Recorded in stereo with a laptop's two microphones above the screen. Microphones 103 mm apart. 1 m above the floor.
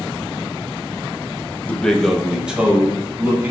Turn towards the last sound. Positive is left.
turn(degrees=-20)  # may be behind; listen again after turning